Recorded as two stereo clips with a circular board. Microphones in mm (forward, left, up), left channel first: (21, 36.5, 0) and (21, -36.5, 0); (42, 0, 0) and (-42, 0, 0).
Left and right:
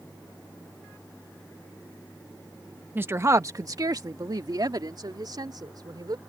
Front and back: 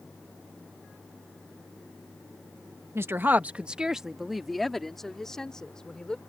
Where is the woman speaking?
140° right; by 6.2 s 80° right.